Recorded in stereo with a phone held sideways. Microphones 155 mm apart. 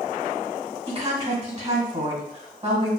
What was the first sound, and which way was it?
A woman speaking, 45° right (ahead or behind).